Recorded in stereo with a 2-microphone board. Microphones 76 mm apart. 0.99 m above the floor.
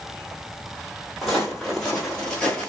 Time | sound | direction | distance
1.2 | footsteps | 5° left (ahead or behind) | 1.5 m